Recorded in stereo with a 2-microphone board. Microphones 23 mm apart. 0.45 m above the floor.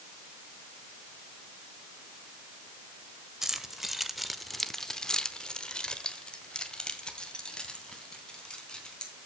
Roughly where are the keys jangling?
Centre.